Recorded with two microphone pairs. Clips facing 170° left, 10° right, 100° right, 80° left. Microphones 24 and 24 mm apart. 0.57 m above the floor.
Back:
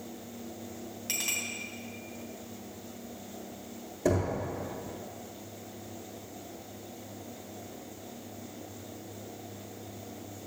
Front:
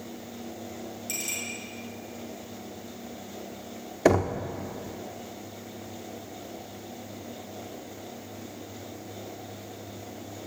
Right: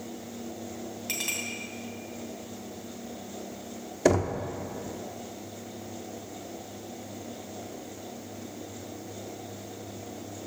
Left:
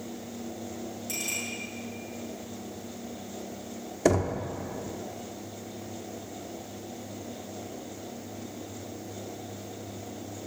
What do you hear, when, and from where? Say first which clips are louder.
1.1 s a clink: back 2 dB, right 2 dB; 135° right, 2.5 m
4.0 s knocking: front 6 dB, right 1 dB; 20° right, 0.6 m